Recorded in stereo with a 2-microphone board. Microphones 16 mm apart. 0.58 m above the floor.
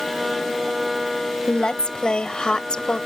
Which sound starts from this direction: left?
A woman speaking, at 1.5 s.